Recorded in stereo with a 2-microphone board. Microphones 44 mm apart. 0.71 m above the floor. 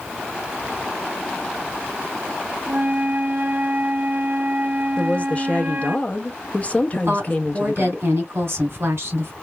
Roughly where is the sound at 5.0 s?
Left.